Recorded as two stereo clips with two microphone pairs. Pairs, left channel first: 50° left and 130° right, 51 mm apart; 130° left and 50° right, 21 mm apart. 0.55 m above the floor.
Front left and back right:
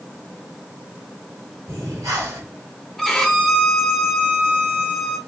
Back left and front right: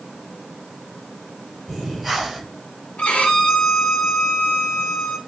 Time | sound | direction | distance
1.7 | breathing | 135° right | 3 m
3.0 | a violin | 135° left | 1.6 m